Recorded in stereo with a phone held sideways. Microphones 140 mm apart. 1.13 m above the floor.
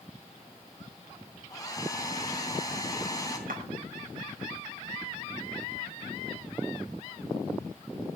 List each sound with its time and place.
1.5 s a hair dryer: 25° left (ahead or behind), 3 m
3.5 s a clap: 85° right, 3.5 m